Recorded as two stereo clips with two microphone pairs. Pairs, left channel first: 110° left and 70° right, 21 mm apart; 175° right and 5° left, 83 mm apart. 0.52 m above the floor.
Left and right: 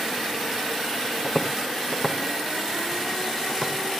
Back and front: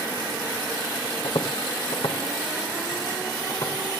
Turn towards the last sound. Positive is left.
turn(degrees=-140)